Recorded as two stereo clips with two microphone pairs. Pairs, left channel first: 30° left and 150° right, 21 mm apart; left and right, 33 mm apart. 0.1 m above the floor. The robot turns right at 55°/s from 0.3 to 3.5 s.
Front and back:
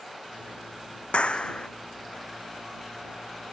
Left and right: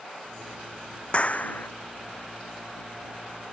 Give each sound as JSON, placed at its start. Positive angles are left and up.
{"t": 1.1, "sound": "a clap", "azimuth_deg": 45}